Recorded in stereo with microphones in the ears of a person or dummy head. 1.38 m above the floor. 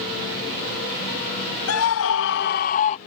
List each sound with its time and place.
1.7 s a scream: 85° left; by 3.0 s 35° left (ahead or behind)